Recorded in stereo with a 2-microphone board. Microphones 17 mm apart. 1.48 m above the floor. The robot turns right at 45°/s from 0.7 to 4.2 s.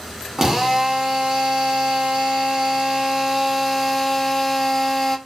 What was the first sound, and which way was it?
A drill, 145° right.